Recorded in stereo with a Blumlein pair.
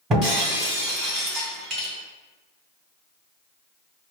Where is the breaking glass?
30° right, 1.7 m.